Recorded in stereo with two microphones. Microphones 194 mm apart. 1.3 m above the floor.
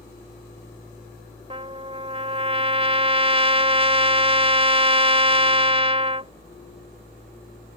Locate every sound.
1.5 s a trumpet: 30° right (ahead or behind)